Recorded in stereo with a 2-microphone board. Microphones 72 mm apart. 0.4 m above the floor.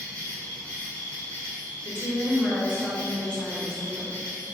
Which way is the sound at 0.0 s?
25° left (ahead or behind).